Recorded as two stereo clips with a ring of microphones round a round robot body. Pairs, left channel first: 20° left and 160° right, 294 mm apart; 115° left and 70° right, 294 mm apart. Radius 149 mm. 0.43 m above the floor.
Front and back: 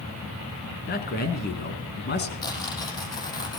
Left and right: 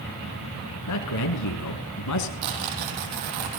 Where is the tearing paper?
55° right, 5.5 m.